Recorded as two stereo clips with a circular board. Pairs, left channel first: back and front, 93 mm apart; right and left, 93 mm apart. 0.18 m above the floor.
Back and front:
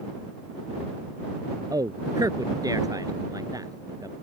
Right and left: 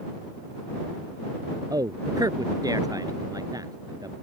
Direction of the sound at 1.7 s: 45° left.